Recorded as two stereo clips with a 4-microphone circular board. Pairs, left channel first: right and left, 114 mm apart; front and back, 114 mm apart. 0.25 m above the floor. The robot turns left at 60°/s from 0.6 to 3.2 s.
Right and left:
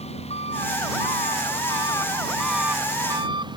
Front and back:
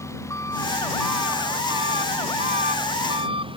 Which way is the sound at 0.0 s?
65° right.